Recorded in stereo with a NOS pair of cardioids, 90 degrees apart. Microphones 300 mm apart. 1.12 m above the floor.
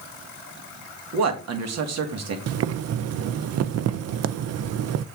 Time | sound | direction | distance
1.1 | a man speaking | 60° right | 1.8 m
2.5 | boiling | 55° right | 0.5 m